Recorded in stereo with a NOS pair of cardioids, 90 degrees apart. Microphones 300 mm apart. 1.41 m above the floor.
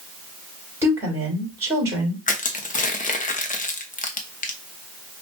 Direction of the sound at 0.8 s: 10° right.